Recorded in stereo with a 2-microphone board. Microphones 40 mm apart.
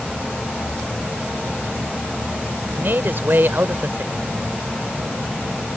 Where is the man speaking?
55° right (ahead or behind).